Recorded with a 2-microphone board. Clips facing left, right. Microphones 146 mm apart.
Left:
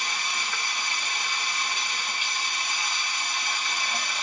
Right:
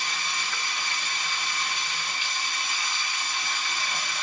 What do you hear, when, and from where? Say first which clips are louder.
0.0 s running water: left 1 dB; 15° left (ahead or behind), 1.2 m